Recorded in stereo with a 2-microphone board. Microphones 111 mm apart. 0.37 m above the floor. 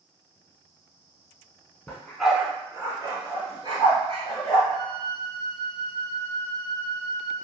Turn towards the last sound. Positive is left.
turn(degrees=-35)  # may be behind; listen again after turning